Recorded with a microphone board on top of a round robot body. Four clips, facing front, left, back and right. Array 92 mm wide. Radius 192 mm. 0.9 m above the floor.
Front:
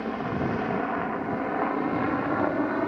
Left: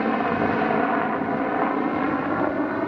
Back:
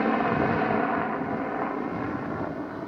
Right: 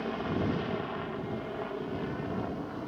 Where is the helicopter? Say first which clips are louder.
Left 10 dB, back 5 dB; 125° left; by 2.9 s 55° left.